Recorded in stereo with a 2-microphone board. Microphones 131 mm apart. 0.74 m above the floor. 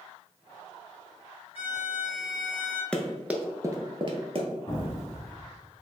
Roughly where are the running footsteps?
Centre.